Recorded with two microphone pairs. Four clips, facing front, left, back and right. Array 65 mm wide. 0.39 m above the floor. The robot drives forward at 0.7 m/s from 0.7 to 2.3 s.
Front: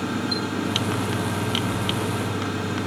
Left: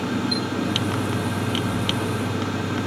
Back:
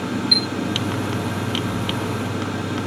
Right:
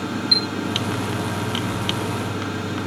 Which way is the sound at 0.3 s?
155° right.